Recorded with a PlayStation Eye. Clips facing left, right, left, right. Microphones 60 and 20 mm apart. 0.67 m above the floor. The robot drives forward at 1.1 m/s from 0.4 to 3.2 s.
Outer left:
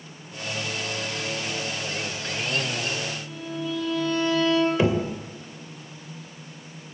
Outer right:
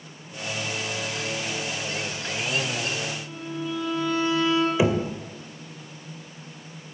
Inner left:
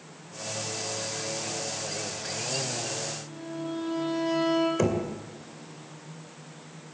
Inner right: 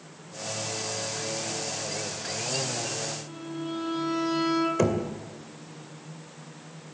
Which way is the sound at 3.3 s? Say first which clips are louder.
Even, even; 20° right (ahead or behind).